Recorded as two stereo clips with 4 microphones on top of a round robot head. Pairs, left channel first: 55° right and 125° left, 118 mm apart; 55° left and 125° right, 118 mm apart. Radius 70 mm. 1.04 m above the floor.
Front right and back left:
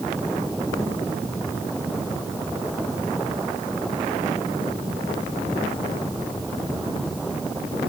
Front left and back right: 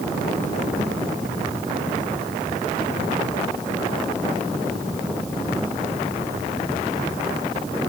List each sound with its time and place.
Only background noise.